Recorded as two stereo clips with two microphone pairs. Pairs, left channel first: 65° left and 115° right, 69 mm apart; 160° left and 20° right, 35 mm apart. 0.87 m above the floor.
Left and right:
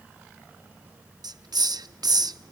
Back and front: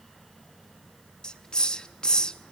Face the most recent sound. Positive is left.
turn(degrees=-130)